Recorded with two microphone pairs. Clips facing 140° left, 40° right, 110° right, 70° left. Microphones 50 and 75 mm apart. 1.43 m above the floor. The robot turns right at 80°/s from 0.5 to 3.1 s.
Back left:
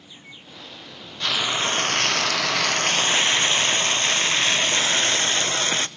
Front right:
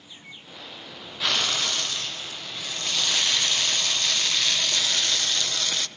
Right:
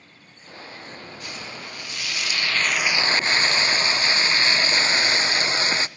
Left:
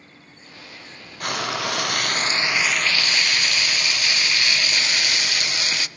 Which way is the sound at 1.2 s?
40° left.